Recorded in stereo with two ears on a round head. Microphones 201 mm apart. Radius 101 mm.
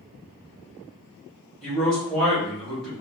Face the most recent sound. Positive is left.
turn(degrees=0)  # may be behind; listen again after turning